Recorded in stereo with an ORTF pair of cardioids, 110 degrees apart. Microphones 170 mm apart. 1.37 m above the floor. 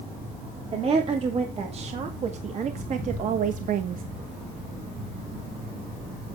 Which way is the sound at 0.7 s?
40° right.